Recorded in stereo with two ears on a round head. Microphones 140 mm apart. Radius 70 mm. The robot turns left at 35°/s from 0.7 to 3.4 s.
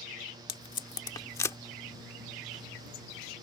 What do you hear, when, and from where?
0.5 s tape being pulled: 35° left (ahead or behind); by 1.6 s 20° left (ahead or behind)